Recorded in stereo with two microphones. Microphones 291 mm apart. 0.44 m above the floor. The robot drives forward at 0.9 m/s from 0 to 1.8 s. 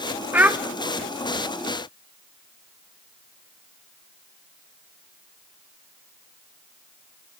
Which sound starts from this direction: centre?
A child speaking, at 0.3 s.